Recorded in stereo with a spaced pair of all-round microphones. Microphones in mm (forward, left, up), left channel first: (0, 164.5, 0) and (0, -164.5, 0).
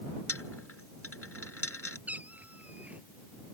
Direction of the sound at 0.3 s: 40° left (ahead or behind).